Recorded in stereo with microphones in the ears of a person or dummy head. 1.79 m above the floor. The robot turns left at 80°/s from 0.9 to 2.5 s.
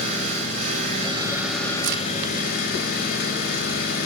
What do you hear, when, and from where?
0.0 s an engine running: 130° right, 3.5 m; by 4.1 s 105° left, 3.5 m
1.8 s a crack: 65° right (ahead or behind), 2.0 m; by 2.0 s 60° right (ahead or behind), 2.0 m